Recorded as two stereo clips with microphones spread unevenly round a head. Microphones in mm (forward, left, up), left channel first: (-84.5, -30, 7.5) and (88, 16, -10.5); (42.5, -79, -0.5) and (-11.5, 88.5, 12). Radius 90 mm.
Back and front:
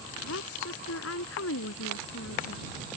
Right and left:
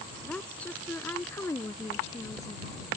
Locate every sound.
0.2 s a woman speaking: 155° right; by 2.7 s 145° right